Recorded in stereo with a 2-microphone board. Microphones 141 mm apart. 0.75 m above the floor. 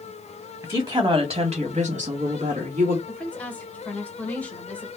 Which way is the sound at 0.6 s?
20° right (ahead or behind).